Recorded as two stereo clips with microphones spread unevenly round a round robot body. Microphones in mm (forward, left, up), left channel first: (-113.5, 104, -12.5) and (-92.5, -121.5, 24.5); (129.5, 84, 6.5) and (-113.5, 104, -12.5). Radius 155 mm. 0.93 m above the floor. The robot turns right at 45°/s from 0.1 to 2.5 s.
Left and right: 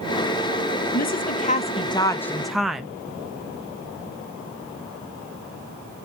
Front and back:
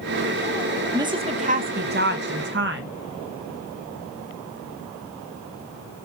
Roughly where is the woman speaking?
Left.